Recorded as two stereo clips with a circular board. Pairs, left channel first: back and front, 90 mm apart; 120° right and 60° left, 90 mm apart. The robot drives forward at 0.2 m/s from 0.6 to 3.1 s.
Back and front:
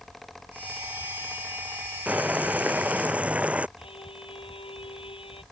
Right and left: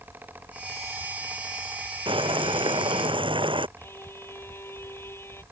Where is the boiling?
75° left.